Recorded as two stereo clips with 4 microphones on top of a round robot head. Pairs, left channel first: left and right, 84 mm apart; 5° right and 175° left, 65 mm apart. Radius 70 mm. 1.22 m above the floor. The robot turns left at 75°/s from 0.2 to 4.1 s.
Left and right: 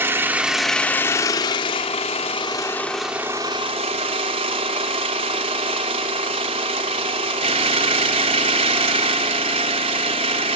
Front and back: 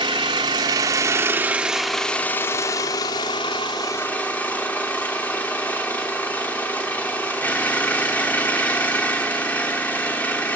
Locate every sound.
0.0 s an engine running: 150° right, 1.1 m; by 10.6 s 80° right, 1.1 m